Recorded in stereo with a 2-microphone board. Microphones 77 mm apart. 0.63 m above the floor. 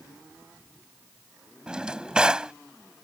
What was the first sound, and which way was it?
A drawer, 10° right (ahead or behind).